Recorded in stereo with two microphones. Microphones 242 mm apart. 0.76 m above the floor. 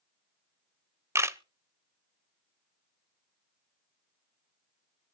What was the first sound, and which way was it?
A camera shutter, 10° right (ahead or behind).